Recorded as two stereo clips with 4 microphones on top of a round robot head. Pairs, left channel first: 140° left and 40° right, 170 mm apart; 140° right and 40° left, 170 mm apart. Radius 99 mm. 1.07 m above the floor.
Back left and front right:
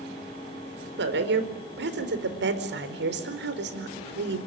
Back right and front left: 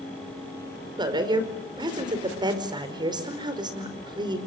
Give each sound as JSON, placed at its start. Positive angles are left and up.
{"t": 1.0, "sound": "a woman speaking", "azimuth_deg": -25, "distance_m": 5.0}